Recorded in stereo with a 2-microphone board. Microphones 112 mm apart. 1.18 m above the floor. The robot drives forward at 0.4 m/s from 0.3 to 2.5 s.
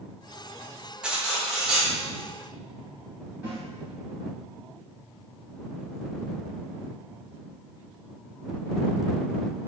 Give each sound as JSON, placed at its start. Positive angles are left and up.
{"t": 1.0, "sound": "cutlery clinking", "side_deg": -10, "distance_m": 0.6}
{"t": 3.4, "sound": "a snare drum", "side_deg": -15, "distance_m": 1.6}